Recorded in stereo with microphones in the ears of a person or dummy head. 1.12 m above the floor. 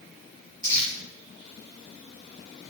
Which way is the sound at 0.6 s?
20° right (ahead or behind).